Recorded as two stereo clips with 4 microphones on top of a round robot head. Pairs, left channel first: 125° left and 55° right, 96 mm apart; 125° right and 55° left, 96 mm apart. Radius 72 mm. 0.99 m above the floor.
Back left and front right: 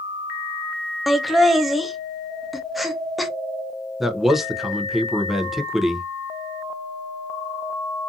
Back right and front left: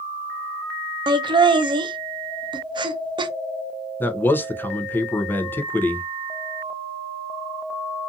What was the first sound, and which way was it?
Laughter, 35° left.